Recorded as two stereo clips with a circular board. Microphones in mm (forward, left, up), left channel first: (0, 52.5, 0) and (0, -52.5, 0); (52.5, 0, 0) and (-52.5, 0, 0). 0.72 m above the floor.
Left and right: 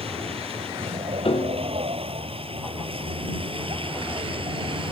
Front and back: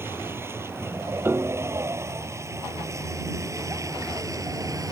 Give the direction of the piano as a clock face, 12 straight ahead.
8 o'clock.